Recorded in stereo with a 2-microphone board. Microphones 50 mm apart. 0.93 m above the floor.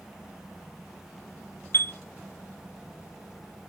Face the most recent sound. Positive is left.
turn(degrees=45)  # may be behind; listen again after turning